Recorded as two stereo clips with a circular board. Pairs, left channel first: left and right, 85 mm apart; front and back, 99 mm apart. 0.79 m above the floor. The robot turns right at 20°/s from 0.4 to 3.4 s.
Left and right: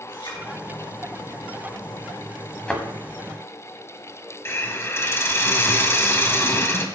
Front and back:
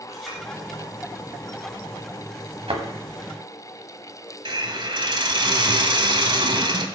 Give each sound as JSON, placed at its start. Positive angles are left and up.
{"t": 0.1, "sound": "a clink", "azimuth_deg": 90, "distance_m": 5.5}
{"t": 2.7, "sound": "a thud", "azimuth_deg": 165, "distance_m": 1.8}
{"t": 4.5, "sound": "a hiss", "azimuth_deg": 150, "distance_m": 1.3}